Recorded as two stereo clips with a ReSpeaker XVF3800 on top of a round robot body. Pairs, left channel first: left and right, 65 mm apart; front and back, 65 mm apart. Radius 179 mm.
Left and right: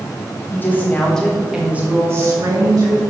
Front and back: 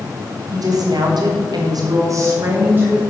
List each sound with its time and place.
0.5 s a woman speaking: 150° left, 1.4 m; by 3.0 s 115° right, 1.5 m